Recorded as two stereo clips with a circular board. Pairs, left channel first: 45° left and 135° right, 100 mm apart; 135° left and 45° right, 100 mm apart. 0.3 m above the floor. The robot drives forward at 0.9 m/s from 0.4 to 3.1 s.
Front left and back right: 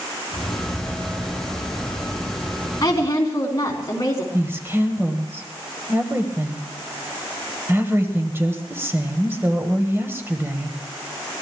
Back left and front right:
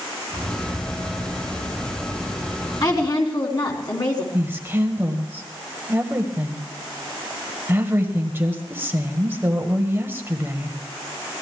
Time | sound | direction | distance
2.8 | a woman speaking | 90° left | 3.5 m
4.3 | a woman speaking | 90° right | 1.5 m